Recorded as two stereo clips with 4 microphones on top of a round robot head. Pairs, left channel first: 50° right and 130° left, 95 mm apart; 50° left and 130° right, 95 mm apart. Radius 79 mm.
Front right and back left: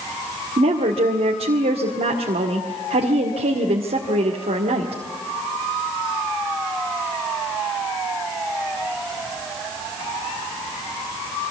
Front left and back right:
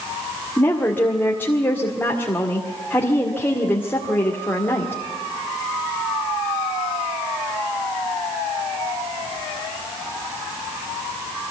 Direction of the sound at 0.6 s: 125° left.